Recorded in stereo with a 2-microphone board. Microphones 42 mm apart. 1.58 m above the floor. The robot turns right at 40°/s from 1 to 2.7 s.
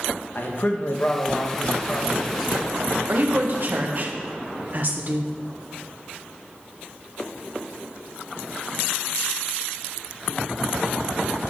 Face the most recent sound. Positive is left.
turn(degrees=-45)  # may be behind; listen again after turning